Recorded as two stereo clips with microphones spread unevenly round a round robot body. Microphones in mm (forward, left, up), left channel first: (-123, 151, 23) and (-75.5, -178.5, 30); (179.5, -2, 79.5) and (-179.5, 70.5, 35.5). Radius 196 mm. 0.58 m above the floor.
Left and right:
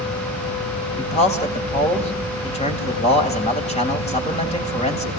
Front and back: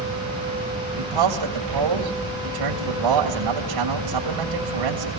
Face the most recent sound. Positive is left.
turn(degrees=165)